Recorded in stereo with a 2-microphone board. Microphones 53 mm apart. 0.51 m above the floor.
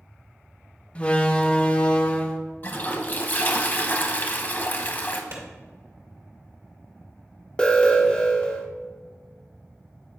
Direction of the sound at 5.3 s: 50° right (ahead or behind).